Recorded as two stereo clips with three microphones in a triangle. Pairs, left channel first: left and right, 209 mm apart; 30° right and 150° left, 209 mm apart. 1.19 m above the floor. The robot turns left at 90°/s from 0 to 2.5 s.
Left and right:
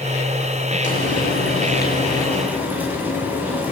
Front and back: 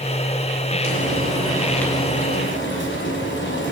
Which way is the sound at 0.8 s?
140° left.